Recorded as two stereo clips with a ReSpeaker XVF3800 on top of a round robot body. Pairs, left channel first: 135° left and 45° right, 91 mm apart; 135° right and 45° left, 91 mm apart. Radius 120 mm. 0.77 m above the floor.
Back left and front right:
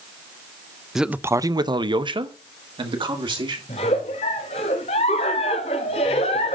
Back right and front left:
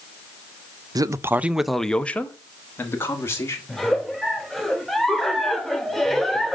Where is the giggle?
135° left, 0.6 m.